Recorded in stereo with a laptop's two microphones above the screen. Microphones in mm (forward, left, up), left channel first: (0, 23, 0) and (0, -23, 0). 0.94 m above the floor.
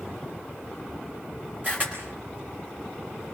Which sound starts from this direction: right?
A camera shutter, at 1.6 s.